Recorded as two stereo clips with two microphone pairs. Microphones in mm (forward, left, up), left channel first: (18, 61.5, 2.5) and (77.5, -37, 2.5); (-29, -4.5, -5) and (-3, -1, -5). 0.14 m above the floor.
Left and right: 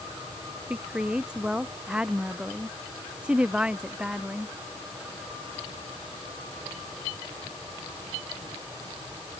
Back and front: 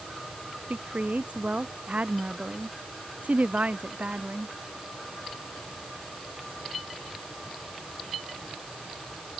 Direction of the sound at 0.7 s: 20° left.